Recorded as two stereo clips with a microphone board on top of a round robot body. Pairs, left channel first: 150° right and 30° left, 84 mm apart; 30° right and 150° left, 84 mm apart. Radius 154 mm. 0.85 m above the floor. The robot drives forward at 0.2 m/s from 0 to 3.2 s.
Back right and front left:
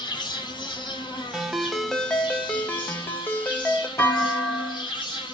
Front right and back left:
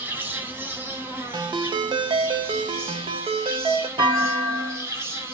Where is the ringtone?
115° left, 0.6 m; by 3.9 s 140° left, 0.8 m.